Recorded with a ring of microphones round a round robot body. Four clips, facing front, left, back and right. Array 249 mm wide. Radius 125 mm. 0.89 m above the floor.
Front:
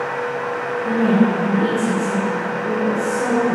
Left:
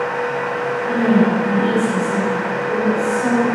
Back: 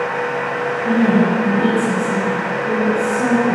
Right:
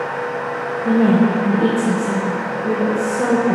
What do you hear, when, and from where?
0.8 s a woman speaking: 85° right, 3.5 m